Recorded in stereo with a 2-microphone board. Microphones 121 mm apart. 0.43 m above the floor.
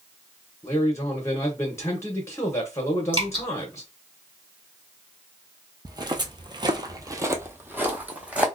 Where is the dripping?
40° right (ahead or behind), 1.8 m.